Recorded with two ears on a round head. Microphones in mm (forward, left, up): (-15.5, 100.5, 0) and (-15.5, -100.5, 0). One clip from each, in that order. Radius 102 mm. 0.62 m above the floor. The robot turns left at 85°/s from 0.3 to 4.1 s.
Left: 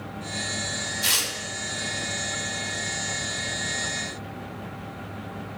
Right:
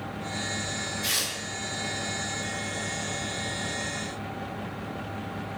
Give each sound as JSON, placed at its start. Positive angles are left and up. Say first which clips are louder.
{"t": 1.0, "sound": "tearing paper", "louder": "left 4 dB", "side_deg": 70, "distance_m": 1.8}